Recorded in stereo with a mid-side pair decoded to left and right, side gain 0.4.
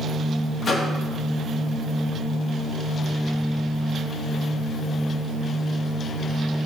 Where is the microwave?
50° left, 2 m.